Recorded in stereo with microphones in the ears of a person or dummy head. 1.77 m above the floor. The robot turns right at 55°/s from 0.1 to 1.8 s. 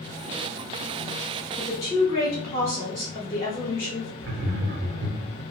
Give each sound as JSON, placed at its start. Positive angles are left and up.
{"t": 1.6, "sound": "a woman speaking", "side_deg": 15, "distance_m": 0.6}
{"t": 4.2, "sound": "laughter", "side_deg": -45, "distance_m": 0.6}